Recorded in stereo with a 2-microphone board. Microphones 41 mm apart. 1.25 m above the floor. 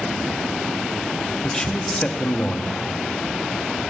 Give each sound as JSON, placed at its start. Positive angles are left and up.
{"t": 1.4, "sound": "a man speaking", "side_deg": 15, "distance_m": 0.9}